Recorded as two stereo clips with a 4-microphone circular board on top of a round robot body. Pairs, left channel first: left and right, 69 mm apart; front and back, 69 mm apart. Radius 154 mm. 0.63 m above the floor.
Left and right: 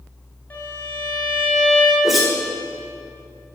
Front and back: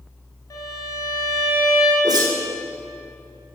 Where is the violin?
30° left, 3 m.